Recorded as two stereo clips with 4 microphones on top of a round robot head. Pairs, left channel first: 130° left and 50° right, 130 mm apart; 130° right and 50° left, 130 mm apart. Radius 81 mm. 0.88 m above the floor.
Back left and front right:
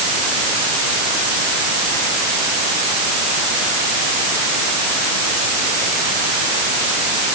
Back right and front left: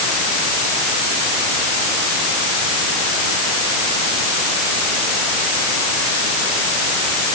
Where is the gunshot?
No gunshot in this recording.